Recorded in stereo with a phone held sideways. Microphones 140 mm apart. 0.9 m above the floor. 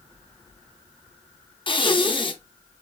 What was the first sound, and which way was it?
Breathing, 40° left (ahead or behind).